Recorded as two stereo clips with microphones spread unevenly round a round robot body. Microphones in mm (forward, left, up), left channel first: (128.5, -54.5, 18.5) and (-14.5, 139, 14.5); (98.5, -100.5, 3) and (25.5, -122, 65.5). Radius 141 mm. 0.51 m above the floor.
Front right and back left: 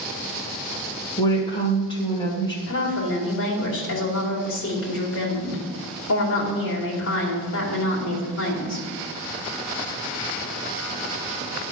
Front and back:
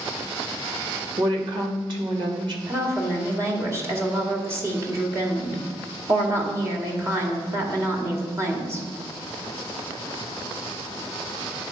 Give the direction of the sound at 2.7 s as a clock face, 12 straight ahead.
3 o'clock.